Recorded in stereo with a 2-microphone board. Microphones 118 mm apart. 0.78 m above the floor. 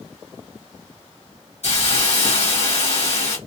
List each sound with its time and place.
1.6 s a hiss: 70° left (ahead or behind), 1.8 m